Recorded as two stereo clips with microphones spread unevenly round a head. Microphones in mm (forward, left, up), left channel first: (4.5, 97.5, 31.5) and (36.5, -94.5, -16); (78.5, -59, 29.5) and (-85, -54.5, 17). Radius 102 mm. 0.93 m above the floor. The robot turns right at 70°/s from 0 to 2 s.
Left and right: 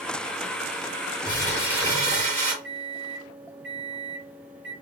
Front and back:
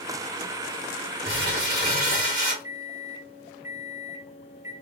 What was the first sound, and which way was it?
Crumpling, 160° left.